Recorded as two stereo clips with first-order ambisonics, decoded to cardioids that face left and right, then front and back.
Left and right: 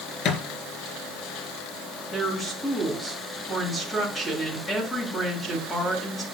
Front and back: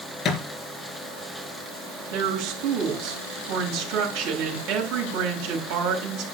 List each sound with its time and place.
0.2 s a thud: 55° left, 3.5 m
2.1 s a woman speaking: 175° left, 4 m